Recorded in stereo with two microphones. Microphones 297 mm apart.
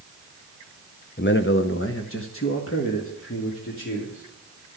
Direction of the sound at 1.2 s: 35° left (ahead or behind).